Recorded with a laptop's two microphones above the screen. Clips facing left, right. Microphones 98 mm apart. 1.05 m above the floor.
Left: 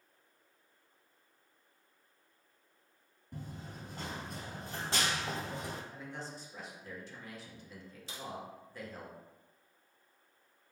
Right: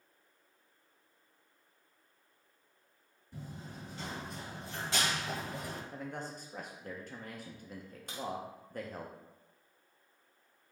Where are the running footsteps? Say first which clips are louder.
Even; 55° left (ahead or behind), 1.6 m; by 5.8 s 20° left (ahead or behind), 1.4 m.